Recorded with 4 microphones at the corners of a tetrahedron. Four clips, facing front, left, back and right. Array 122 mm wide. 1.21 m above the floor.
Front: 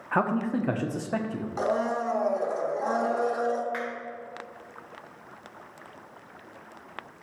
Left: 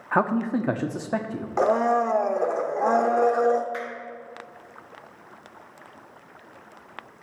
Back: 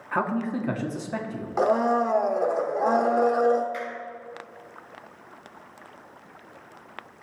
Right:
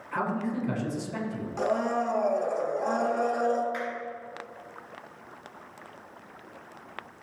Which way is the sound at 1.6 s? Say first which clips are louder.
Left 7 dB, back 6 dB; 125° left.